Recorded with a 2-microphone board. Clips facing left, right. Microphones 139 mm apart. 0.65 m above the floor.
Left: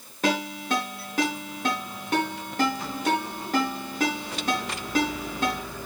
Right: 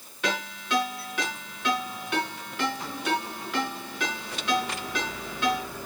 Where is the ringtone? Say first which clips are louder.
Left 5 dB; 40° left (ahead or behind), 5 m.